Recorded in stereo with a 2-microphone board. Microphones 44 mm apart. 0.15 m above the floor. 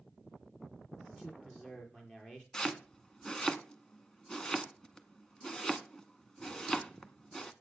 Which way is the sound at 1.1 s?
20° left (ahead or behind).